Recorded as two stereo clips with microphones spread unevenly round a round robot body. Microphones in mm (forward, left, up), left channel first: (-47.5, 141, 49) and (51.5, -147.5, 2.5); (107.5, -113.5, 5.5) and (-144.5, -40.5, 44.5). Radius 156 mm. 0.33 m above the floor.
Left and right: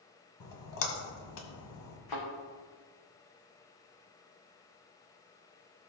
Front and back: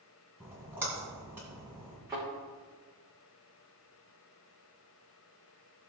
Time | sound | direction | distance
0.4 | a splash | 80° left | 1.7 m
2.1 | a thud | 80° left | 3.5 m